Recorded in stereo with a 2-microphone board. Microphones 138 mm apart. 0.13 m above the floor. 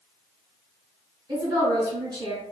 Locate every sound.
1.3 s a woman speaking: 30° right (ahead or behind), 2.0 m